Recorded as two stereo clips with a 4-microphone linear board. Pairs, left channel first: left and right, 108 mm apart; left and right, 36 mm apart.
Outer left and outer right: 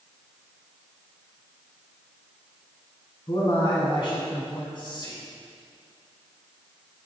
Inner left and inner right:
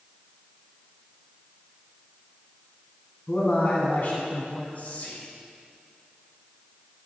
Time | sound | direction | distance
3.3 | a man speaking | 55° left (ahead or behind) | 1.7 m
4.8 | whispering | 50° left (ahead or behind) | 2.5 m